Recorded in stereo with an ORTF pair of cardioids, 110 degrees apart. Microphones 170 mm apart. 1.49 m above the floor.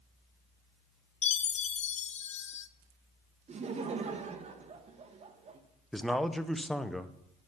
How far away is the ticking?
No ticking in this recording.